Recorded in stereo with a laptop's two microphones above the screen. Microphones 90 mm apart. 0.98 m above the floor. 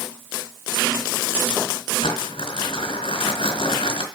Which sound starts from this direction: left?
Crumpling, at 2.0 s.